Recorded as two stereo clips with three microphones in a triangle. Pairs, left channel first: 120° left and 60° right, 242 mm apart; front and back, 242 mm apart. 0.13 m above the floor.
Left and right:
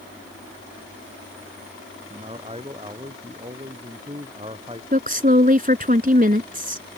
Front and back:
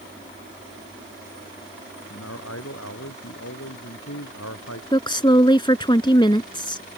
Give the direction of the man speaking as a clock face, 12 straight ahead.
12 o'clock.